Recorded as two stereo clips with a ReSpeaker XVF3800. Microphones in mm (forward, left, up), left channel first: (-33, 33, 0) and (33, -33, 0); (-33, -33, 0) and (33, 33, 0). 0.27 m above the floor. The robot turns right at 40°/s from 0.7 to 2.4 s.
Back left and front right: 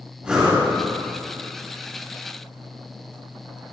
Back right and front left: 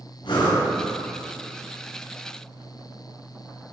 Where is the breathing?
125° right, 3.5 m.